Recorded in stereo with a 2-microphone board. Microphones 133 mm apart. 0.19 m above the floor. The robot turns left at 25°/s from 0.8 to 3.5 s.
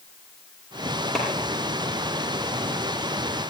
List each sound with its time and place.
1.1 s a clap: 5° left (ahead or behind), 5 m; by 1.2 s centre (ahead or behind), 5 m